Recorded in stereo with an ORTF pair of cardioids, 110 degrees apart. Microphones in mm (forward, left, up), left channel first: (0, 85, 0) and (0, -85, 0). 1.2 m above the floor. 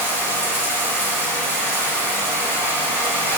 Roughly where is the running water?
Ahead.